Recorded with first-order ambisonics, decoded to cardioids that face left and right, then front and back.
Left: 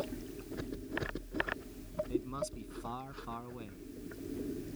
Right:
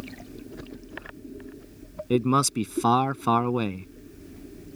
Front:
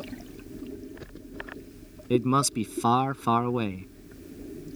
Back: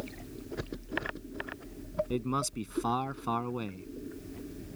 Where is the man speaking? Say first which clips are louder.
Right 19 dB, front 9 dB; 65° right.